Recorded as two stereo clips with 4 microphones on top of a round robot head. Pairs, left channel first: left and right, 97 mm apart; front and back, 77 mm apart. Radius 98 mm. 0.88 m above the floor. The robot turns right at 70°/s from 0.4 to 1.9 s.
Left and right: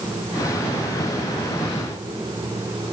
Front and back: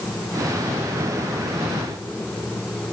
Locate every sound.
Only background noise.